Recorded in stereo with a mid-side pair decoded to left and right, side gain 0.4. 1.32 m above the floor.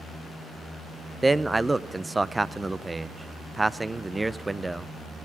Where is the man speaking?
15° right, 0.5 m.